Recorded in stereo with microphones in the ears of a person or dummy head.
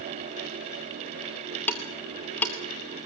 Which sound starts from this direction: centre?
Ticking, at 1.7 s.